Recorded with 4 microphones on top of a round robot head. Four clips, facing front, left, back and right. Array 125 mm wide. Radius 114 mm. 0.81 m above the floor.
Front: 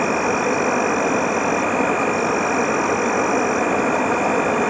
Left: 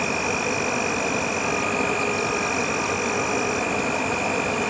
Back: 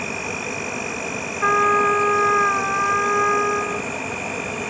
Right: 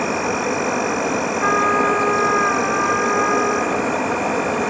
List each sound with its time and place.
0.0 s an insect: 30° right
1.4 s a trumpet: 145° right